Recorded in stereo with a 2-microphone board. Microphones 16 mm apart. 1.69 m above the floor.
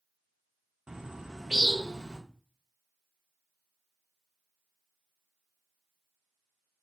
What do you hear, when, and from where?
0.9 s a bird: 65° right (ahead or behind), 0.6 m